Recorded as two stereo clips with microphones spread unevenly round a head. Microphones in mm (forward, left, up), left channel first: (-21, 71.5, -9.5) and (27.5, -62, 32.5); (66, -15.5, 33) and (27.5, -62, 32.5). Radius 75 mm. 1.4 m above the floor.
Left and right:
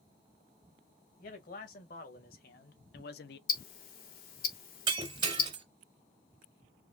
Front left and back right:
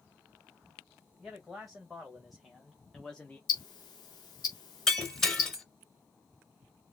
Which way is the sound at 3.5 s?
80° left.